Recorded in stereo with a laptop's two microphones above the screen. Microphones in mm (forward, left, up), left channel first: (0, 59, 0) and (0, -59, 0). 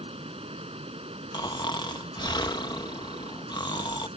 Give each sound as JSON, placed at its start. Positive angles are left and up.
{"t": 0.0, "sound": "running water", "side_deg": -55}
{"t": 1.3, "sound": "snoring", "side_deg": 35}